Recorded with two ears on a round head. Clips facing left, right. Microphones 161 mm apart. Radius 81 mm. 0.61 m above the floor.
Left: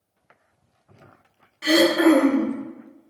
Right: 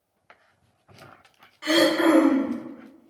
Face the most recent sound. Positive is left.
turn(degrees=30)  # may be behind; listen again after turning